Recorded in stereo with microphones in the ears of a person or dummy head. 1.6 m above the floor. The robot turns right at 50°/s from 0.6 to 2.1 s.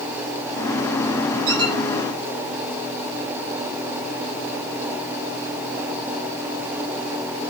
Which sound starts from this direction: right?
A squeak, at 1.5 s.